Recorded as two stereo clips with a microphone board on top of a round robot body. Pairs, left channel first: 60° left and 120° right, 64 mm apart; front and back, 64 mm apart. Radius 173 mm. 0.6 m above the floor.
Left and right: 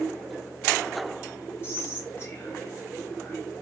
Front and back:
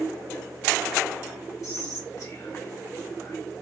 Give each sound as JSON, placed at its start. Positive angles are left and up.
{"t": 1.6, "sound": "whispering", "azimuth_deg": 20, "distance_m": 1.4}